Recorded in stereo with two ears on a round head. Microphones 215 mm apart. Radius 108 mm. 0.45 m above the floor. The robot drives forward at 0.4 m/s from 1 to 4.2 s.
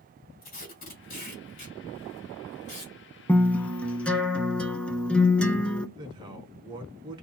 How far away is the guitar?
About 0.5 m.